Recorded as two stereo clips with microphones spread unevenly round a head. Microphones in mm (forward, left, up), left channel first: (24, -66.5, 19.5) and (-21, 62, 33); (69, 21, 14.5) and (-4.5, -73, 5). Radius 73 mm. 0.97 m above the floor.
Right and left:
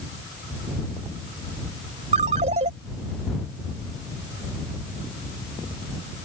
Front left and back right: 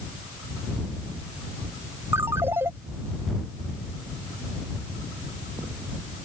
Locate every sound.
2.1 s a ringtone: 155° left